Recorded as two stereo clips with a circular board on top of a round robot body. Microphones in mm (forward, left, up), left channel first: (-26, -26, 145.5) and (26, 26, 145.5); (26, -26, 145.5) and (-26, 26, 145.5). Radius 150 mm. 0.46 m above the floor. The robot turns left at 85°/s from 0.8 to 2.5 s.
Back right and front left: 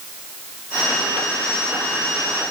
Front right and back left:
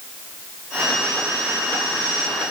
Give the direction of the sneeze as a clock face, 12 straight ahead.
No sneeze in this recording.